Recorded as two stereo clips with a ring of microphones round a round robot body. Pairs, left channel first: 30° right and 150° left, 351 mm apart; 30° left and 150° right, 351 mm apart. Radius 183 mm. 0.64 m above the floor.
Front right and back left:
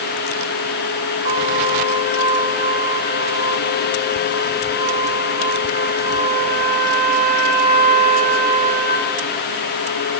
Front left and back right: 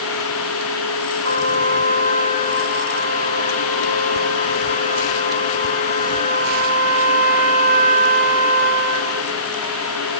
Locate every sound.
1.2 s a trumpet: 150° left, 7.5 m